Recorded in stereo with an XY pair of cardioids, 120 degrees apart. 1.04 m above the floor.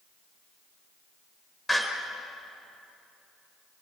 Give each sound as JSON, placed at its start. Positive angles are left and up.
{"t": 1.7, "sound": "a door slam", "azimuth_deg": 10, "distance_m": 2.5}